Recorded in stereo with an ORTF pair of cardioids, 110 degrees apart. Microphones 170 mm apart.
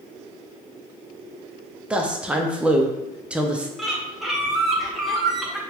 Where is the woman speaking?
5° right, 0.6 m.